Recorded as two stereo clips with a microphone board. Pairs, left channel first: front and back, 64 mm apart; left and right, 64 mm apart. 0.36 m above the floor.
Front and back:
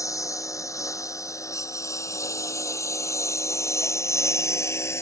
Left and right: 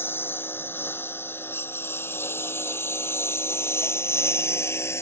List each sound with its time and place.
0.0 s a lawn mower: 35° left; by 5.0 s 45° left